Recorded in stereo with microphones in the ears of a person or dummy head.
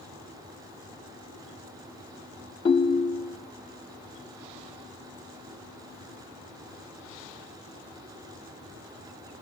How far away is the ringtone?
About 0.6 m.